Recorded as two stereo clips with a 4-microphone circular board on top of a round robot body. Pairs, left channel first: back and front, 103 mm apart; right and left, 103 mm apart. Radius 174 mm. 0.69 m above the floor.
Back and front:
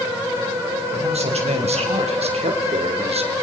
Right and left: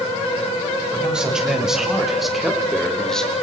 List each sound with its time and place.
0.9 s a man speaking: 10° left, 6 m; by 3.3 s 5° right, 3.5 m